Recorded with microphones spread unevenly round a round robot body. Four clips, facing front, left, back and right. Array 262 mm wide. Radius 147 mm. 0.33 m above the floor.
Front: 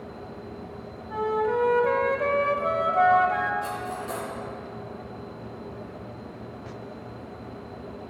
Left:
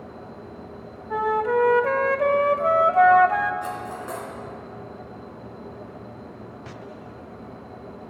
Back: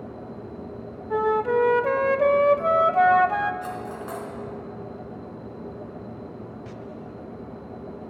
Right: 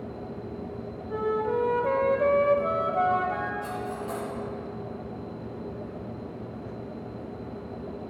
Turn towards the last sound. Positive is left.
turn(degrees=110)